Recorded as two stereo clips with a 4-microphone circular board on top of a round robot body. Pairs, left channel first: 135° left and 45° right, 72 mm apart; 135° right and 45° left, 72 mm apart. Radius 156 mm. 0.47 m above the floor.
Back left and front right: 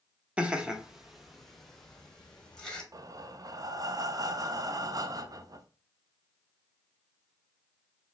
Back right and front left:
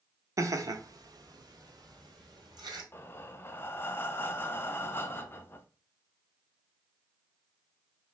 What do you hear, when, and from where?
0.4 s laughter: 25° left, 1.0 m; by 2.8 s 55° left, 2 m
2.9 s breathing: 80° right, 0.6 m